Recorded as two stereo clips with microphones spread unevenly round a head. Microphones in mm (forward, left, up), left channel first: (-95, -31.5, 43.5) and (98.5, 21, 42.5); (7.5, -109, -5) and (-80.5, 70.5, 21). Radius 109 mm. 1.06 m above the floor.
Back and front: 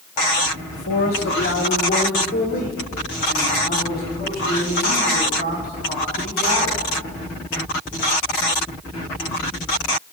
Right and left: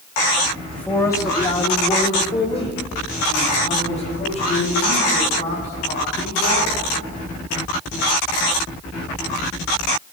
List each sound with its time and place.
0.7 s a man speaking: 150° right, 1.3 m; by 6.8 s 120° right, 9 m